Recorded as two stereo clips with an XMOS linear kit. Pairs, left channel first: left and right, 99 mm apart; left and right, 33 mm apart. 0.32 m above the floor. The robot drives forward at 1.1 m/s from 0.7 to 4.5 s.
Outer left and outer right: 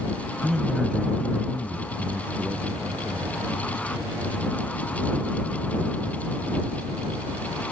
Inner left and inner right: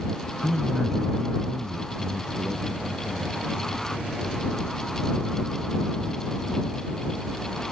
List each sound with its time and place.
0.4 s a man speaking: 5° right (ahead or behind); by 3.4 s centre (ahead or behind)